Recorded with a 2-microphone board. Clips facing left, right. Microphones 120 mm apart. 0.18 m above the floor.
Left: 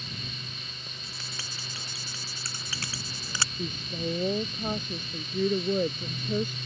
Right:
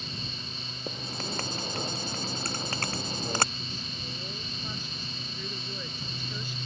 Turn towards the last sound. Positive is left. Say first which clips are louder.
# left 6 dB
turn(degrees=55)  # may be behind; listen again after turning